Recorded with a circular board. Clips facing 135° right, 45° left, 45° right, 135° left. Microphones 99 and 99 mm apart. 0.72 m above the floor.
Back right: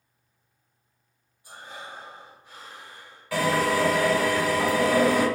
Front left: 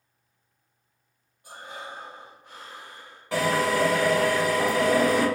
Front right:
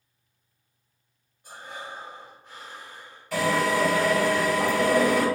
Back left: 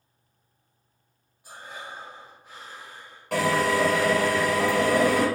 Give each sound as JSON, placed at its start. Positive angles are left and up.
{"t": 1.4, "sound": "breathing", "azimuth_deg": 55, "distance_m": 1.0}
{"t": 3.3, "sound": "a drill", "azimuth_deg": 110, "distance_m": 1.5}